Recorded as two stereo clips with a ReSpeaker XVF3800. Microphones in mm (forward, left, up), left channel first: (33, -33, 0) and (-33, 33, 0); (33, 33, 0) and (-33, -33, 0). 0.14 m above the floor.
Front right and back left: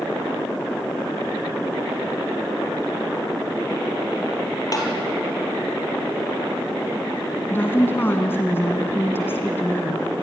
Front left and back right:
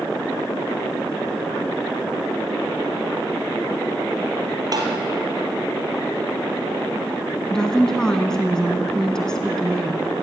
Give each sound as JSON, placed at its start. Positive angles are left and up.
{"t": 4.7, "sound": "tapping", "azimuth_deg": -90, "distance_m": 4.0}
{"t": 7.5, "sound": "a woman speaking", "azimuth_deg": -25, "distance_m": 1.7}